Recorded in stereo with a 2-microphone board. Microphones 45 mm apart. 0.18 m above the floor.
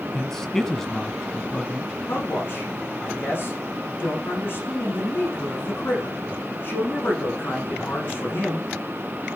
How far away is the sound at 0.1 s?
About 1.3 m.